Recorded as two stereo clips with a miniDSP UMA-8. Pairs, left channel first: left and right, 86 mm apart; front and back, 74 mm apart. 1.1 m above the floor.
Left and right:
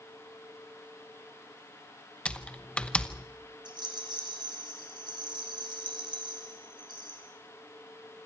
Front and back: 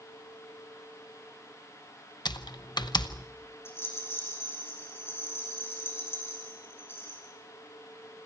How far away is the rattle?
About 6 m.